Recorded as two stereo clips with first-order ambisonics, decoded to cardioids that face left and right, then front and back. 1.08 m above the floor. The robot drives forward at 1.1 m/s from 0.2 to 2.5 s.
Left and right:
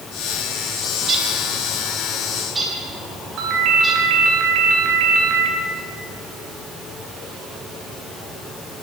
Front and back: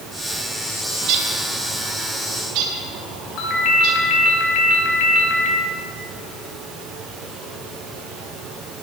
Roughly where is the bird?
Behind right.